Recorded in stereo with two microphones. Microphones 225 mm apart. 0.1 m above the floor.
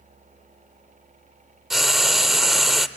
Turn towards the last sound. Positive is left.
turn(degrees=0)  # may be behind; listen again after turning